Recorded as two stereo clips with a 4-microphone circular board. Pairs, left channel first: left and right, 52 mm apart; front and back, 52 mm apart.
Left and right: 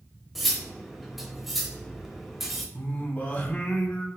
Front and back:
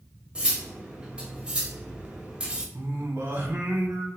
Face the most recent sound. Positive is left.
turn(degrees=145)